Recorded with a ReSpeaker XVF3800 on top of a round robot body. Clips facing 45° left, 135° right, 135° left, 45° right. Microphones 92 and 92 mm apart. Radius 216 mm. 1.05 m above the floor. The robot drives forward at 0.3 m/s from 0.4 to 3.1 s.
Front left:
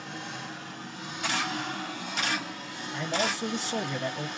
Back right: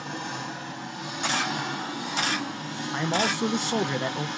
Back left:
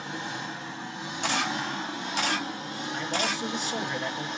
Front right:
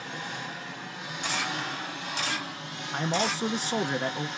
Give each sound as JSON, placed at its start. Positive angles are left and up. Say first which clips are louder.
{"t": 0.0, "sound": "an engine running", "louder": "back right 5 dB, back left 2 dB", "azimuth_deg": -160, "distance_m": 3.0}
{"t": 1.2, "sound": "a camera shutter", "louder": "back right 3 dB, back left 3 dB", "azimuth_deg": 165, "distance_m": 0.8}
{"t": 2.9, "sound": "a man speaking", "louder": "back right 4 dB, front right 3 dB", "azimuth_deg": -95, "distance_m": 0.7}